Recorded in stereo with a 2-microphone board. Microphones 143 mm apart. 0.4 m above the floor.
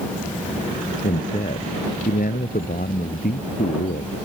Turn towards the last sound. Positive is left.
turn(degrees=80)